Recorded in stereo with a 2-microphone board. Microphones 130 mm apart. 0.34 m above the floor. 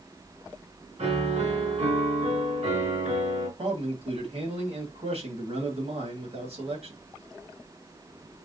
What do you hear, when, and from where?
1.0 s a piano: 65° right (ahead or behind), 2.5 m
3.6 s a man speaking: 60° right (ahead or behind), 1.8 m